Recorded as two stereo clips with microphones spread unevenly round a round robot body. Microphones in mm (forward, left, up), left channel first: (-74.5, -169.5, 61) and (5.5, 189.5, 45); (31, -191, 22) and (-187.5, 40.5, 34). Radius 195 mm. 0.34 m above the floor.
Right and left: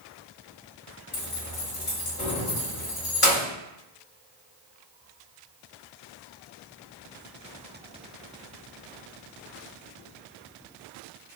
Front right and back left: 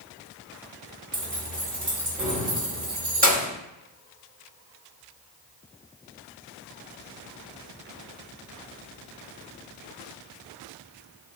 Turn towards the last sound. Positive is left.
turn(degrees=-165)